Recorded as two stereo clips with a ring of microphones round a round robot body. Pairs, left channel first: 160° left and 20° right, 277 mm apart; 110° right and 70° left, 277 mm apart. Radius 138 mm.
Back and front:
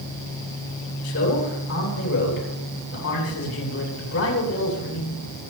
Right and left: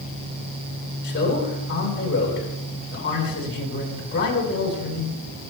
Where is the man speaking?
165° right, 8.5 m.